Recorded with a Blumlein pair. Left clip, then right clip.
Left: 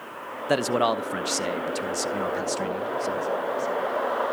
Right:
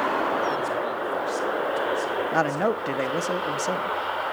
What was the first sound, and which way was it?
A man speaking, 45° left.